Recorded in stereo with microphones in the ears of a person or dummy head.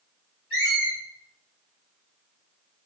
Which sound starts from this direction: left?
A squeak, at 0.5 s.